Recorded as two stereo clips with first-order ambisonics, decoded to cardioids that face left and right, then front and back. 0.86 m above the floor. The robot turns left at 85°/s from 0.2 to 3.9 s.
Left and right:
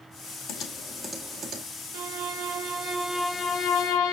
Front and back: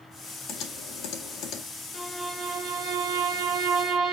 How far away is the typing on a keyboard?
About 1.9 m.